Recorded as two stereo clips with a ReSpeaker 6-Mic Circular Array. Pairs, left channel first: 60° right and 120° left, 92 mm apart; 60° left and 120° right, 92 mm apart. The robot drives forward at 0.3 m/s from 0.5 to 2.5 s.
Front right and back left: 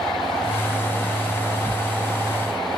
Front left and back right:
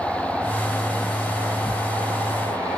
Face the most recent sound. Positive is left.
turn(degrees=160)